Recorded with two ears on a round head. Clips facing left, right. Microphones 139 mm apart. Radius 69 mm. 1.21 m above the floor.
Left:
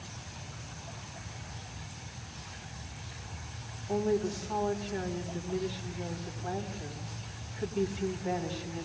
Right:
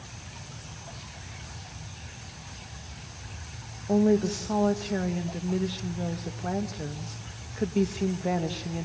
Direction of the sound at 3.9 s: 65° right (ahead or behind).